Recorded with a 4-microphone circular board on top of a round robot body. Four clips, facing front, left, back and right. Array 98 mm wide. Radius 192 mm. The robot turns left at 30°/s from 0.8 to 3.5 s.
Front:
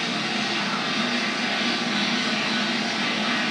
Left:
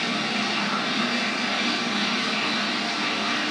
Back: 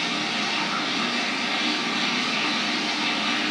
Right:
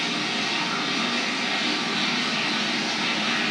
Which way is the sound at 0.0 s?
50° left.